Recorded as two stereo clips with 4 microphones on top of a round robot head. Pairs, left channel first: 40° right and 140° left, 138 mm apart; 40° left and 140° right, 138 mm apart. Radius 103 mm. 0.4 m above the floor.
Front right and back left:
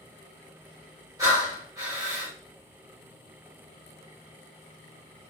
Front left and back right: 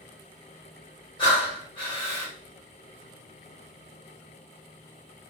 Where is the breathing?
85° left, 1.9 m.